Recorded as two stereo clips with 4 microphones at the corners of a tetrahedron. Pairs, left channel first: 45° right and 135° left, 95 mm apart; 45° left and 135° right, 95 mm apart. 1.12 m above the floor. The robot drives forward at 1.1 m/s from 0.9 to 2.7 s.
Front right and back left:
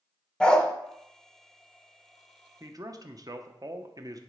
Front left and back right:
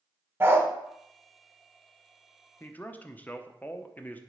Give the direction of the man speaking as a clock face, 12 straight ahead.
9 o'clock.